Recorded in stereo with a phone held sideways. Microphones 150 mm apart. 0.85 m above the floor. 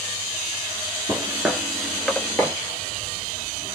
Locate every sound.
1.1 s footsteps: 20° right (ahead or behind), 0.8 m; by 2.5 s 15° left (ahead or behind), 1.1 m